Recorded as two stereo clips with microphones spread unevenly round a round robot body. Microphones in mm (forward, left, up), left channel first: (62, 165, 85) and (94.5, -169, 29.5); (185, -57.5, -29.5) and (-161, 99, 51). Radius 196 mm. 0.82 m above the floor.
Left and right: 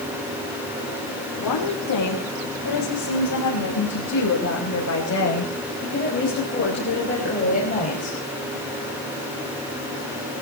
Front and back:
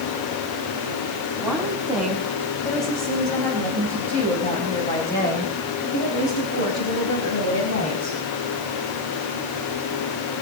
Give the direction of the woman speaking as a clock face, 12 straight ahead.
10 o'clock.